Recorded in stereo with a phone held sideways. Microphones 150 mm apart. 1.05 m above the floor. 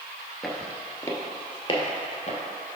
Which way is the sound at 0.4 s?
Centre (ahead or behind).